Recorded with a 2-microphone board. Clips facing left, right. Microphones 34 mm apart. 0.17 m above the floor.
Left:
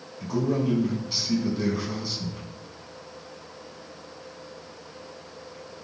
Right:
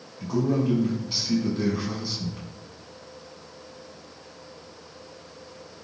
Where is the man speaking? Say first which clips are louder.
Right 1 dB; centre (ahead or behind), 1.0 m.